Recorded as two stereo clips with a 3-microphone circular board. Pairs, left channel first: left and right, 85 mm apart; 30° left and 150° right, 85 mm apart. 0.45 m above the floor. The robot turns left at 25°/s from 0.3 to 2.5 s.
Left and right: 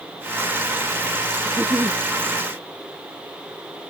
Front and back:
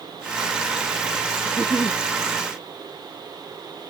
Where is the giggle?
30° right; by 2.0 s 40° right.